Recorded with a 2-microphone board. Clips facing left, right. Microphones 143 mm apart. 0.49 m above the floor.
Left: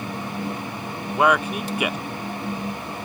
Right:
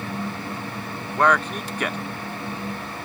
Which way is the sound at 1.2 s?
10° left (ahead or behind).